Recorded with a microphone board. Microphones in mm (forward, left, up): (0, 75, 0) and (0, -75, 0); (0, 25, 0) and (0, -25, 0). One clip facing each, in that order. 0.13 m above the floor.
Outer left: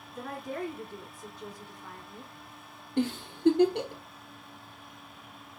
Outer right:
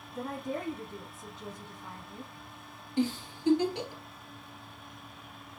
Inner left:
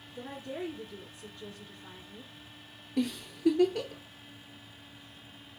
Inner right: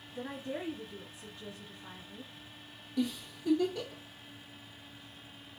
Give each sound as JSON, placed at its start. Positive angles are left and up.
{"t": 0.1, "sound": "a woman speaking", "side_deg": -25, "distance_m": 1.3}
{"t": 3.0, "sound": "a giggle", "side_deg": 60, "distance_m": 0.9}